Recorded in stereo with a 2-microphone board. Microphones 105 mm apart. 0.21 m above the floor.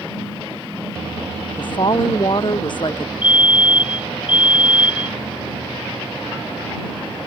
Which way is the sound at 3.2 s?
55° left (ahead or behind).